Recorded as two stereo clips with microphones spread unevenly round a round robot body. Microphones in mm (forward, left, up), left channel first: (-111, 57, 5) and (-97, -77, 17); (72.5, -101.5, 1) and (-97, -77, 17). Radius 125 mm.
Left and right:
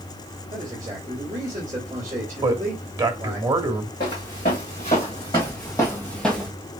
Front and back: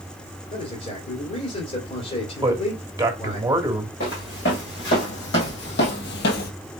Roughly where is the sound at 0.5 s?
Ahead.